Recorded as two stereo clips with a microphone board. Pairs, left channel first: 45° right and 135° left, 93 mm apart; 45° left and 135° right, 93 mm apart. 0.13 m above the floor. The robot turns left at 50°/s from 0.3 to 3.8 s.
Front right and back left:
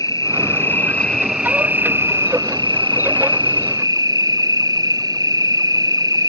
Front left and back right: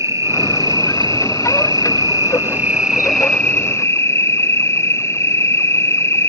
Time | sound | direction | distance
0.0 | an insect | 85° right | ?